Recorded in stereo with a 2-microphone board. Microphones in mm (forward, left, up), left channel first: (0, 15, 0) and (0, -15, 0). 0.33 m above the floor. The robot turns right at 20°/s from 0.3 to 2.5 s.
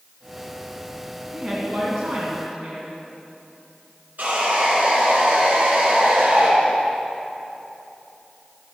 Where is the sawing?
70° right (ahead or behind), 4 m.